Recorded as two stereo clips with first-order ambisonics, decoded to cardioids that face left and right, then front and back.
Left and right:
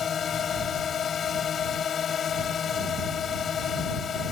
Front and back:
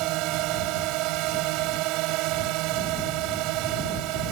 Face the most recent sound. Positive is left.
turn(degrees=155)